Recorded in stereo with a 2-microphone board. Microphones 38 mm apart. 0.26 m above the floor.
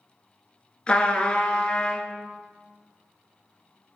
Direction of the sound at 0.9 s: 25° left (ahead or behind).